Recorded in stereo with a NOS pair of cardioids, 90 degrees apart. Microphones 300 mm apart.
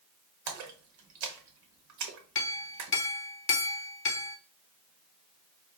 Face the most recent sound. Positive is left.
turn(degrees=45)